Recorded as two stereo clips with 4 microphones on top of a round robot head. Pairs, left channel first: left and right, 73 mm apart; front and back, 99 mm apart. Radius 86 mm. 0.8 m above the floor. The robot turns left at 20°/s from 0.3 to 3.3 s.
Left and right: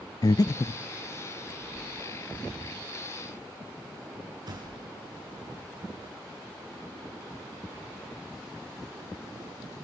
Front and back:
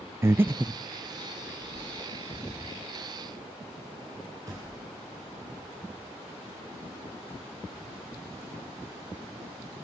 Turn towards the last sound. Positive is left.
turn(degrees=-120)